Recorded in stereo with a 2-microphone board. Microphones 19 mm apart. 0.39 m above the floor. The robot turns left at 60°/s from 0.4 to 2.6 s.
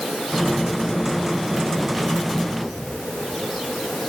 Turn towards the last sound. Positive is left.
No sound to turn to.